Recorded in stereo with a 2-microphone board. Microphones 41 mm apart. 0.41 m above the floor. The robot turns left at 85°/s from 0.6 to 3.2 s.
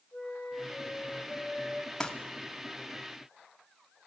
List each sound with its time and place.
0.1 s a flute: 75° left, 7 m; by 1.9 s 35° right, 7 m
2.0 s crumpling: 15° left (ahead or behind), 1.5 m; by 2.1 s 25° left (ahead or behind), 1.5 m